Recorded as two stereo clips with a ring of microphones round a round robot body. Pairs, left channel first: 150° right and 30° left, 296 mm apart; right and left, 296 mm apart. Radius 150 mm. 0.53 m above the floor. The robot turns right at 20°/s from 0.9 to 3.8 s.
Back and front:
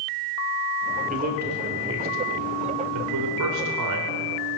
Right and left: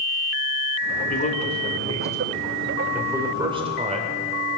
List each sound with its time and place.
1.1 s a man speaking: 30° right, 2 m; by 4.2 s 25° left, 2 m